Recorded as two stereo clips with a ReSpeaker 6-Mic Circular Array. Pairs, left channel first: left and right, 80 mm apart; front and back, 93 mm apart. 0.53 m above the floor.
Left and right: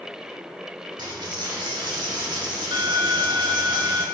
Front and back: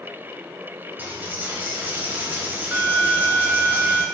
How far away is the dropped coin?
About 0.9 m.